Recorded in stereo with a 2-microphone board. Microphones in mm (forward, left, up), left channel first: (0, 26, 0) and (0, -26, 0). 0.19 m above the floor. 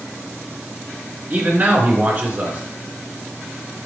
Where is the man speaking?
35° right (ahead or behind), 2.5 m.